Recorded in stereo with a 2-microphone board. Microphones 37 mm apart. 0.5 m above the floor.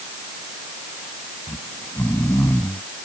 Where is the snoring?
75° left (ahead or behind).